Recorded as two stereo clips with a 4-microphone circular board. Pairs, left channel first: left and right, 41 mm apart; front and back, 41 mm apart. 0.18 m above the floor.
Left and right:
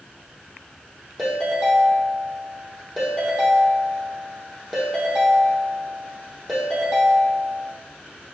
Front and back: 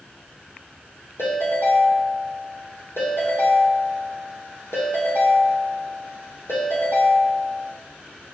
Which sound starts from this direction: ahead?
A ringtone, at 1.2 s.